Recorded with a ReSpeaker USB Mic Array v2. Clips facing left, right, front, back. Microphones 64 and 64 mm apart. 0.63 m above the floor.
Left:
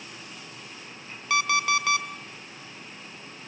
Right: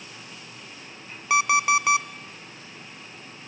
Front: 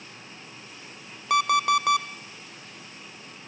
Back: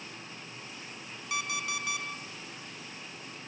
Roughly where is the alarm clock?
Ahead.